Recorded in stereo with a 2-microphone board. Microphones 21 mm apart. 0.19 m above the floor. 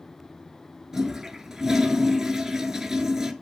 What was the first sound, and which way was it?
A toilet flushing, 25° right (ahead or behind).